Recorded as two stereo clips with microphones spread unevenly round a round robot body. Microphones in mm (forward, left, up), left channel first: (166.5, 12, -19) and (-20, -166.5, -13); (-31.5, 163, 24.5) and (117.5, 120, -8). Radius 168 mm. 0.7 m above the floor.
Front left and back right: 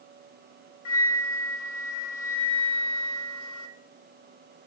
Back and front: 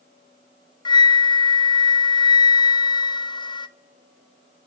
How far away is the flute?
About 0.6 m.